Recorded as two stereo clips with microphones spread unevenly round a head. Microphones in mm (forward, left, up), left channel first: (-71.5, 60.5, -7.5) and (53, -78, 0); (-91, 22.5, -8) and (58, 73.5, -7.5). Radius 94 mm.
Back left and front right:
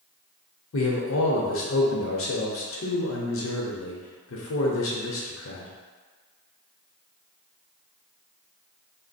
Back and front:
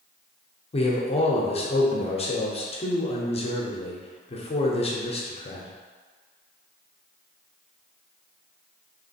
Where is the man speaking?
145° left, 0.9 m.